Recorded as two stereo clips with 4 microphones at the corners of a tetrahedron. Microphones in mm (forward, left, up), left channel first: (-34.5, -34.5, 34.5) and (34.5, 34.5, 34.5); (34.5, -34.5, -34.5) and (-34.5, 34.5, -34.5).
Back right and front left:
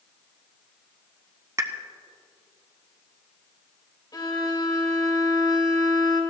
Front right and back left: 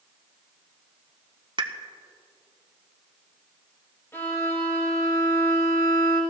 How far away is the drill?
No drill in this recording.